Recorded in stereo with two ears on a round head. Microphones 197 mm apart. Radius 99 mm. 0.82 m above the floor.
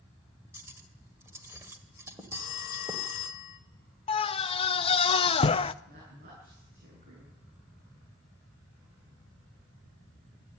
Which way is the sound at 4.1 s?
25° left (ahead or behind).